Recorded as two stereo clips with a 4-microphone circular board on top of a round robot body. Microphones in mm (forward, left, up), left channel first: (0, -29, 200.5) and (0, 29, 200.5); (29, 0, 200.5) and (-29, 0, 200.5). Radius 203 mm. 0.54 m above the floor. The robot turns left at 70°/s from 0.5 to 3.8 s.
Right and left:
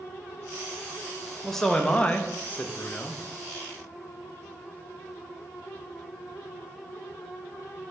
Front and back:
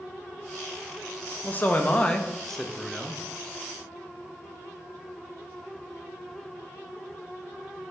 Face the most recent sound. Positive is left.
turn(degrees=-170)